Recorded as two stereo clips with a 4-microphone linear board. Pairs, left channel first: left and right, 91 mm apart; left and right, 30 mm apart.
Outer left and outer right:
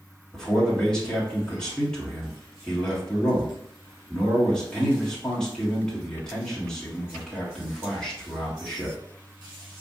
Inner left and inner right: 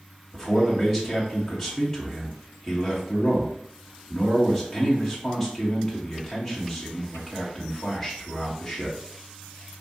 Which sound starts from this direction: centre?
A man speaking, at 0.3 s.